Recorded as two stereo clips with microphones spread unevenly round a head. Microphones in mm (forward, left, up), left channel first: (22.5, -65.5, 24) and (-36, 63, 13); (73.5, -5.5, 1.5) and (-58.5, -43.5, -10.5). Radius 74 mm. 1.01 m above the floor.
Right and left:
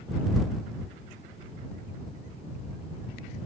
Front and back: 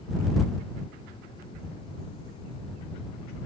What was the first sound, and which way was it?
Only background noise.